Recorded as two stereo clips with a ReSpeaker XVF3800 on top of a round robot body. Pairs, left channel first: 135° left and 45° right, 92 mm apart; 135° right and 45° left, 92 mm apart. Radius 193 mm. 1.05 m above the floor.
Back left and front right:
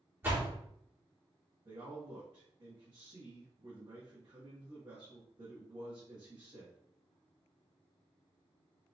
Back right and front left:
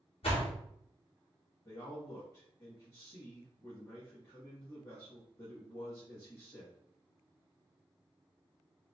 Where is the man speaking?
80° right, 1.7 m.